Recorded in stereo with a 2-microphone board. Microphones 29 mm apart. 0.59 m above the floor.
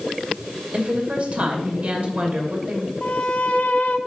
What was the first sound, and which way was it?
A woman speaking, 55° right (ahead or behind).